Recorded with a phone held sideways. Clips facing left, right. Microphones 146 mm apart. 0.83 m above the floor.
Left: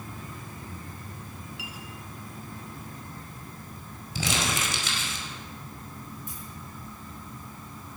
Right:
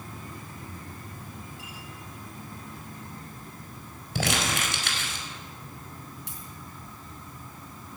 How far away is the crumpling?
About 4.5 m.